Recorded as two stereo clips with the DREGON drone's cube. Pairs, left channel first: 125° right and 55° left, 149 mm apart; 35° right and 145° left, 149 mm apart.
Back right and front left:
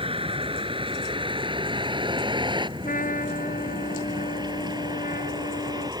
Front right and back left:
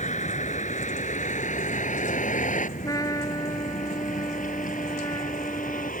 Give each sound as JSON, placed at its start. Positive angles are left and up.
{"t": 0.0, "sound": "a vehicle", "azimuth_deg": 5}
{"t": 2.8, "sound": "a trumpet", "azimuth_deg": -100}